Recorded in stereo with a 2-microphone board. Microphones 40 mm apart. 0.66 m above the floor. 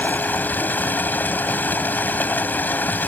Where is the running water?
50° left (ahead or behind).